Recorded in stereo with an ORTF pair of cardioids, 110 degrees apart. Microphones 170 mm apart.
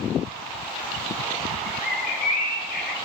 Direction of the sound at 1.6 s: 60° left.